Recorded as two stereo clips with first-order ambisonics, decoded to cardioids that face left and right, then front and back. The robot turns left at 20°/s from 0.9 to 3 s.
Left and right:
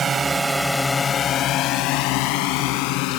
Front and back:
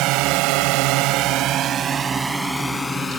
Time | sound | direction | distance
0.0 | a drone | 155° right | ?